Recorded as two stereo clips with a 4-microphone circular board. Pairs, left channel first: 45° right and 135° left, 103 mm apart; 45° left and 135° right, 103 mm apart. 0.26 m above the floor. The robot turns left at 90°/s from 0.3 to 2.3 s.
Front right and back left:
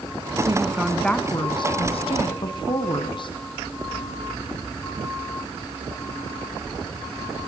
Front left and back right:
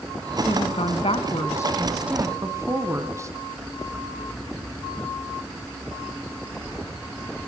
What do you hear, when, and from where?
0.5 s a woman speaking: 90° left, 2.0 m; by 3.3 s 75° right, 2.0 m